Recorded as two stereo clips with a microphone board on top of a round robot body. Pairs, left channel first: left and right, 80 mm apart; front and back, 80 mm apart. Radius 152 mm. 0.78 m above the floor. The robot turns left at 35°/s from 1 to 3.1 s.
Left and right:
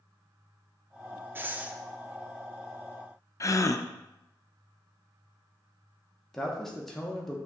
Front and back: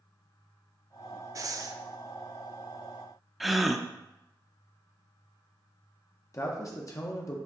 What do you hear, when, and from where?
1.4 s breathing: 145° right, 0.6 m; by 1.8 s 160° right, 0.6 m
3.4 s a gasp: 90° left, 0.5 m
6.3 s a man speaking: 5° left, 0.8 m